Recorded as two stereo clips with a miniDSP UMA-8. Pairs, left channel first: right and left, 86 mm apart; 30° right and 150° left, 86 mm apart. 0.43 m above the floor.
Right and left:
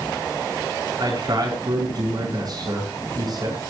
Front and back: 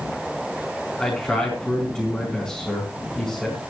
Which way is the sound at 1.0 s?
50° left.